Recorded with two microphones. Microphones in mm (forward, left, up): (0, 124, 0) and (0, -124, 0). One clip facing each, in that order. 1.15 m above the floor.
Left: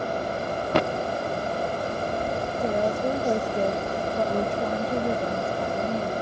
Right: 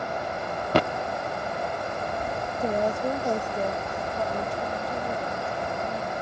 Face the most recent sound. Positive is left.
turn(degrees=85)